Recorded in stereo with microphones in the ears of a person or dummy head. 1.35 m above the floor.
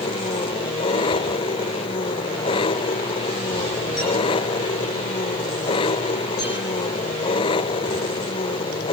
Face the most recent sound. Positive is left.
turn(degrees=25)  # may be behind; listen again after turning